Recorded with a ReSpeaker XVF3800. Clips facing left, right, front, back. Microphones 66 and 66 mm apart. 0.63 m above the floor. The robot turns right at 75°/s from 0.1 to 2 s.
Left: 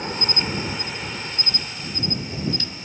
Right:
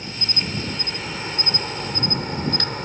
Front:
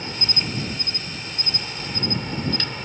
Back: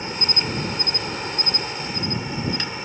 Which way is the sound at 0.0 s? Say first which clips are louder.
Left 4 dB, back 2 dB; 115° left.